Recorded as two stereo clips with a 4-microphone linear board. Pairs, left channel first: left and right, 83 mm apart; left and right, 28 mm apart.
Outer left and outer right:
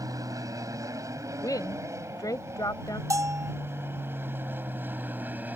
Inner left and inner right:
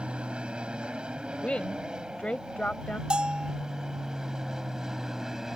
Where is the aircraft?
45° right (ahead or behind); by 5.6 s 20° right (ahead or behind).